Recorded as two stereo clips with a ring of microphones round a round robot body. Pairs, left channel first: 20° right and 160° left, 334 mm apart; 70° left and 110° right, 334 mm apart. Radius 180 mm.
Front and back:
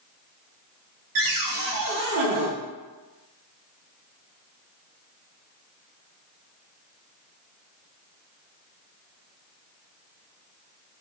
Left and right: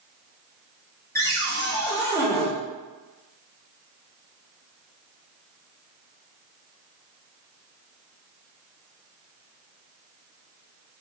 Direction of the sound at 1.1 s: 150° left.